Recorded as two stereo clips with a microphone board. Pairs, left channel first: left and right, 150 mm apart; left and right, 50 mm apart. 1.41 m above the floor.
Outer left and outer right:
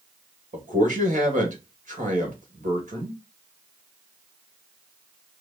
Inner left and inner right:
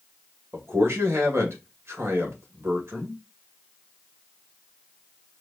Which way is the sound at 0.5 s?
55° right (ahead or behind).